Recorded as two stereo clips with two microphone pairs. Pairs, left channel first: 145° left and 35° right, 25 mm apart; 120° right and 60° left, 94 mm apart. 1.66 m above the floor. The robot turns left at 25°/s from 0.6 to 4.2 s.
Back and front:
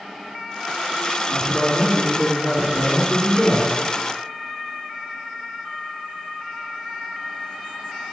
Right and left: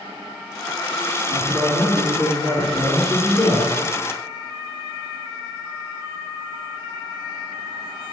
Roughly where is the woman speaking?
Ahead left.